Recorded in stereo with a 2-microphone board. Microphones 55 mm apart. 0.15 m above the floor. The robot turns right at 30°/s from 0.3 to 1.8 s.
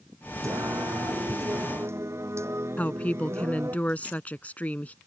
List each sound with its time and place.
0.4 s singing: 95° right; by 3.8 s 55° right
2.8 s a woman speaking: 30° left (ahead or behind)